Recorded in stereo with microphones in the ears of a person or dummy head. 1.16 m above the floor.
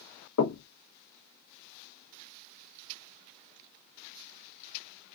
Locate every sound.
0.4 s knocking: 80° left, 1.1 m